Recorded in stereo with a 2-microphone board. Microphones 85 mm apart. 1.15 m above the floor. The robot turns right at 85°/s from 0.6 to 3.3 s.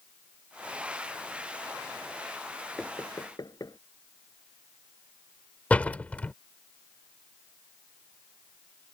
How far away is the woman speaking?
No woman speaking in this recording.